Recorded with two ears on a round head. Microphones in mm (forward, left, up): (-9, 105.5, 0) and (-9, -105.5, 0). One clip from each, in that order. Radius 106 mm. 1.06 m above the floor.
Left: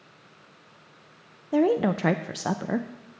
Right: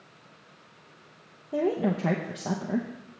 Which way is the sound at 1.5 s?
60° left (ahead or behind).